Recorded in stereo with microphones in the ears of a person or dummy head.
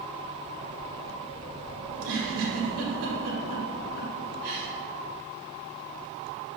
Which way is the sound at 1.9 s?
75° right (ahead or behind).